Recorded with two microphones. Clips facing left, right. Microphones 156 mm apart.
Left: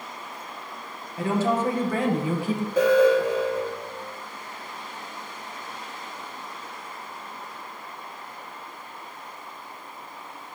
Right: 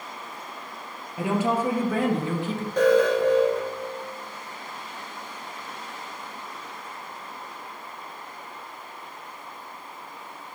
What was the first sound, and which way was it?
A woman speaking, 20° right (ahead or behind).